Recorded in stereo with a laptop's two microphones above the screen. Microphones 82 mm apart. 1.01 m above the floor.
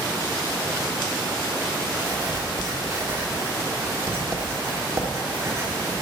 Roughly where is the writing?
Right.